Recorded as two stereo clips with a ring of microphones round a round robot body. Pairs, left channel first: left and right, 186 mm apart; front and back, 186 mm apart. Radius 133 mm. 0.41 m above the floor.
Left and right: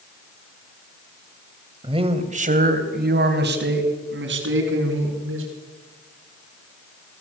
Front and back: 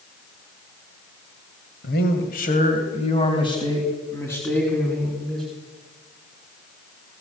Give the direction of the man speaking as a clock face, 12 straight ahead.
1 o'clock.